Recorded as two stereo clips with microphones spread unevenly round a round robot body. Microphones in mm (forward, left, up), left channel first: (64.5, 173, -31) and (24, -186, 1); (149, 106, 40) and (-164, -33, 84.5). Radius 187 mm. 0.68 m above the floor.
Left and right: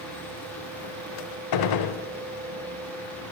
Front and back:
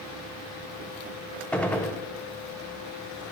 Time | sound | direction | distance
1.5 | a gunshot | 115° left | 0.6 m